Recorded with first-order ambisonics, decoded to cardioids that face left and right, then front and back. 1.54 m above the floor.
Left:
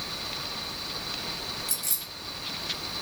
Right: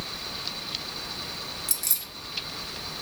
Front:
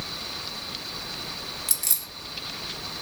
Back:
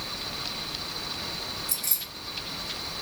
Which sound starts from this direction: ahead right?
Keys jangling, at 1.7 s.